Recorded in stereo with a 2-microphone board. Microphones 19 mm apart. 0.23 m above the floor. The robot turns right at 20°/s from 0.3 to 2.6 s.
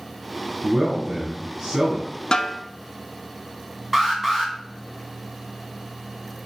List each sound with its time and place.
0.6 s a man speaking: 15° right (ahead or behind), 1.9 m; by 2.1 s 35° right (ahead or behind), 1.9 m
2.3 s a snare drum: 40° left (ahead or behind), 0.7 m; by 2.6 s 35° left (ahead or behind), 0.7 m
3.9 s an alarm: 20° right (ahead or behind), 1.7 m